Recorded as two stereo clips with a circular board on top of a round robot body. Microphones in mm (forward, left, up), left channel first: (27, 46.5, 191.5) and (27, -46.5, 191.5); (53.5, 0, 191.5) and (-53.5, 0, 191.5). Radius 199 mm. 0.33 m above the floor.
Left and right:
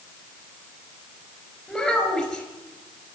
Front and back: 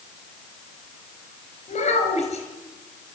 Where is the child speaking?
5° left, 4 m.